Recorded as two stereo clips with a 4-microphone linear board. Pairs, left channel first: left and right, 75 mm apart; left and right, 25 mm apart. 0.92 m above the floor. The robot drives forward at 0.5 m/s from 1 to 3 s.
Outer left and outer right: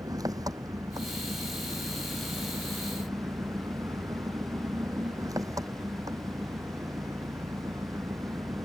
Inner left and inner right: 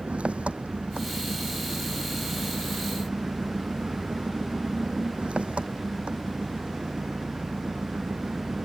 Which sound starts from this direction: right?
An engine running, at 0.0 s.